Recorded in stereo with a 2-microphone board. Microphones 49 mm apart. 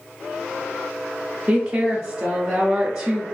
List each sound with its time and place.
1.5 s a woman speaking: 20° right (ahead or behind), 0.6 m